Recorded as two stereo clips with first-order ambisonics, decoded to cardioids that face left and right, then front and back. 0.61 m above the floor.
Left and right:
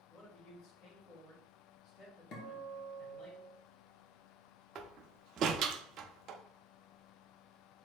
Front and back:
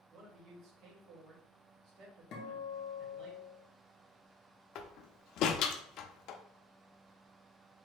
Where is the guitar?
40° left, 1.1 m.